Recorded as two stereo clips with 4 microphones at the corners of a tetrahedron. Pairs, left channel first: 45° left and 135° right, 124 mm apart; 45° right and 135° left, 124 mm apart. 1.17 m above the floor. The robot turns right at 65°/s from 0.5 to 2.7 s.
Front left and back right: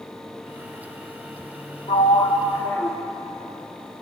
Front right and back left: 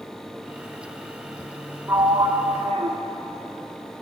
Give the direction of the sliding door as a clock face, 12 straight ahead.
10 o'clock.